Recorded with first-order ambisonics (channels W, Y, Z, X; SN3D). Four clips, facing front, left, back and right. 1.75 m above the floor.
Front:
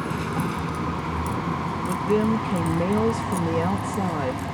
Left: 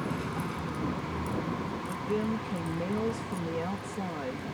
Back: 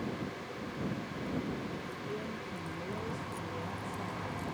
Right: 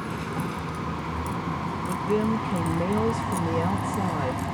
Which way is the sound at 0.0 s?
15° right.